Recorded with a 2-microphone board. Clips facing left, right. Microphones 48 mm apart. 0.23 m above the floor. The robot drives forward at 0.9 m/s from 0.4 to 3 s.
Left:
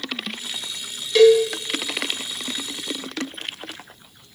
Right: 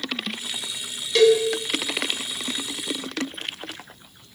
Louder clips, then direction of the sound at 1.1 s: Left 4 dB; 5° left (ahead or behind).